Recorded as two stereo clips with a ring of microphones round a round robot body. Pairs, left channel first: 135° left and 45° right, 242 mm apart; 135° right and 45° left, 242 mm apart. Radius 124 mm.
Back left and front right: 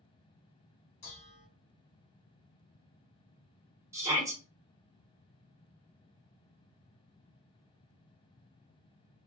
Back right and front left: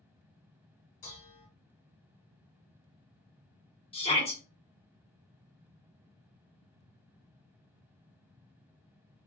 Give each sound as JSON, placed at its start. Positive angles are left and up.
{"t": 1.0, "sound": "dishes clattering", "azimuth_deg": 170, "distance_m": 1.4}
{"t": 3.9, "sound": "a shout", "azimuth_deg": -110, "distance_m": 1.4}